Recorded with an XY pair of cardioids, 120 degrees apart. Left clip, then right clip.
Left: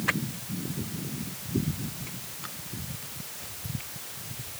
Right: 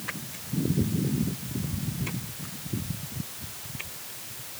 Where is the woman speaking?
No woman speaking in this recording.